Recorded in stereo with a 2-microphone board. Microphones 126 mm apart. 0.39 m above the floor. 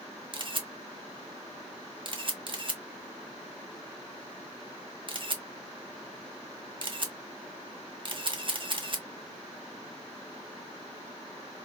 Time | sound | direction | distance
0.3 | a camera shutter | 40° right (ahead or behind) | 0.6 m